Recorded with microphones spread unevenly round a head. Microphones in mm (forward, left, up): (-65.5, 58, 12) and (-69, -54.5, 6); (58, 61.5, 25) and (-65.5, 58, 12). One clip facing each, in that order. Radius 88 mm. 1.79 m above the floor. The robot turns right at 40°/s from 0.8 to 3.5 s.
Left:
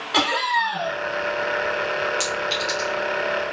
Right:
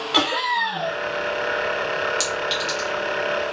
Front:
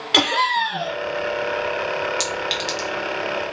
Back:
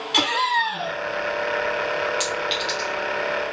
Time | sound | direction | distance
0.1 | laughter | 5° right | 1.0 m
2.2 | a clink | 30° right | 1.1 m